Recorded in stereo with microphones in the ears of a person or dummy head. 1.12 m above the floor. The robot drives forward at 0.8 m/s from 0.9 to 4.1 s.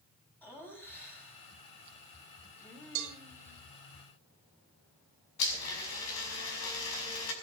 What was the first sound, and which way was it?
Laughter, 10° left (ahead or behind).